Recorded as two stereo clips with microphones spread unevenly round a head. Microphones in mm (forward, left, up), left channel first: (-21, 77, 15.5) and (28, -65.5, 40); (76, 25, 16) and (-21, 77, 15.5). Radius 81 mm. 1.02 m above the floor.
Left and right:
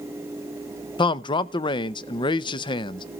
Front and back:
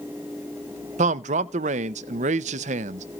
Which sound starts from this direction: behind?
A man speaking, at 1.0 s.